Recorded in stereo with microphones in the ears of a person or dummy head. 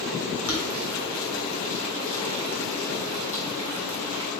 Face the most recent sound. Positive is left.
turn(degrees=60)  # may be behind; listen again after turning